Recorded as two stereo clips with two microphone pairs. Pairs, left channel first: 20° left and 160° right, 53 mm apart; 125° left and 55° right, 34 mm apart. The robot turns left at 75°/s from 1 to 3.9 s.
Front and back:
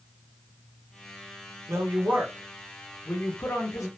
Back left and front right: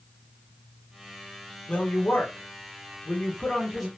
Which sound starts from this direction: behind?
A woman speaking, at 1.7 s.